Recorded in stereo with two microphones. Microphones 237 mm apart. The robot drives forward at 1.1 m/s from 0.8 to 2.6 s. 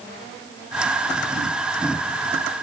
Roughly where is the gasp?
No gasp in this recording.